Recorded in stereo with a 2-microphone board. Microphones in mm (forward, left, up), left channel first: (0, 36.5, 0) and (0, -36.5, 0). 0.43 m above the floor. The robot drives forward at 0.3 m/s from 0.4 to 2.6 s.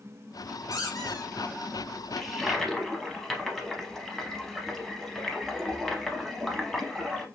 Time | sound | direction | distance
0.7 | a squeak | 55° left (ahead or behind) | 1.0 m
2.2 | a toilet flushing | 5° left (ahead or behind) | 0.5 m